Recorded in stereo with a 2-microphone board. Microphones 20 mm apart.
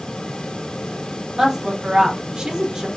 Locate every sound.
1.4 s a woman speaking: 25° right (ahead or behind), 1.0 m; by 2.9 s 40° right (ahead or behind), 0.8 m